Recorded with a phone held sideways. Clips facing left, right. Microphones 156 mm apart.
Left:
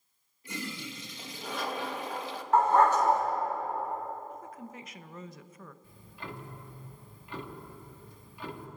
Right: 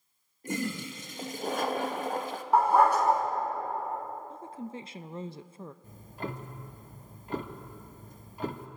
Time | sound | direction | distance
0.4 | a toilet flushing | 45° right (ahead or behind) | 1.1 m
2.5 | a dog barking | 10° right (ahead or behind) | 3.5 m
4.3 | a woman speaking | 30° right (ahead or behind) | 0.5 m
5.8 | ticking | 45° right (ahead or behind) | 1.1 m